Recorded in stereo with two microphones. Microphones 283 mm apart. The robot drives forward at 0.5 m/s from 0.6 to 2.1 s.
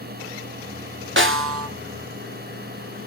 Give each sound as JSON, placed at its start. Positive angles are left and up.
{"t": 1.2, "sound": "a snare drum", "side_deg": -45, "distance_m": 0.8}